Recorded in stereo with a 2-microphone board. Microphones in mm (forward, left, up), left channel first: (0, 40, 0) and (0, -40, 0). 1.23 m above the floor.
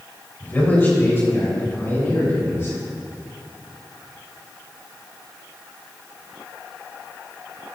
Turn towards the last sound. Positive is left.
turn(degrees=40)  # may be behind; listen again after turning